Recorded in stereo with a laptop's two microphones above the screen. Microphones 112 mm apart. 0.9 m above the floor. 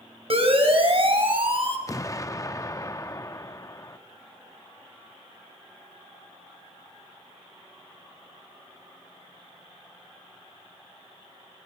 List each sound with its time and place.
0.3 s a siren: 60° right (ahead or behind), 4.5 m; by 1.8 s 50° right (ahead or behind), 5 m
1.9 s an explosion: 30° left (ahead or behind), 0.7 m